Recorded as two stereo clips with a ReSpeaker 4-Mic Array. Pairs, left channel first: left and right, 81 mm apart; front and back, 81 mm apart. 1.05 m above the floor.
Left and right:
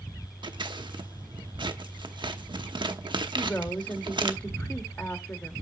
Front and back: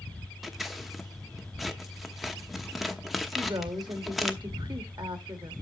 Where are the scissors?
90° right, 0.9 m.